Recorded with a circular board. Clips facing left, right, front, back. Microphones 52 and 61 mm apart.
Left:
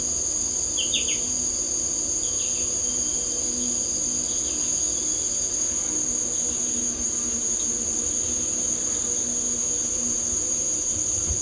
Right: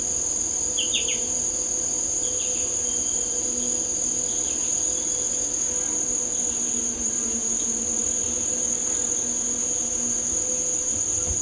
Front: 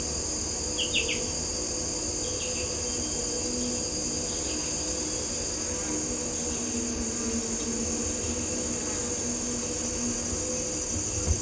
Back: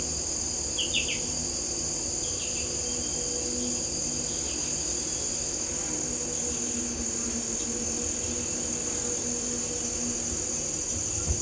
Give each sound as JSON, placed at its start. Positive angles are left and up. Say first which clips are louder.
{"t": 0.0, "sound": "an insect", "louder": "even, front 3 dB", "azimuth_deg": -30, "distance_m": 1.0}